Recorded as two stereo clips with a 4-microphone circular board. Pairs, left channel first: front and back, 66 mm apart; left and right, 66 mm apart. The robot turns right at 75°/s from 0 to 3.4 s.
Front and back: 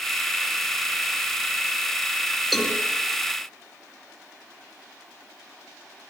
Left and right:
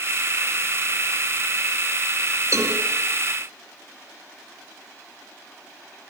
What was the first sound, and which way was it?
A cowbell, 85° right.